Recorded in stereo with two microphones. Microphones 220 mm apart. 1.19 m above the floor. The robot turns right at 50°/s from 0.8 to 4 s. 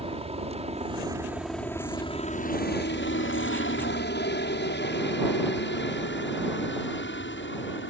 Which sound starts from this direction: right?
A helicopter, at 0.0 s.